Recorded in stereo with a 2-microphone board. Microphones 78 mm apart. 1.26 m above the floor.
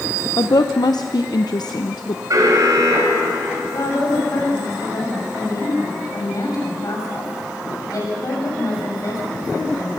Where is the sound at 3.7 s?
50° left (ahead or behind), 7 m.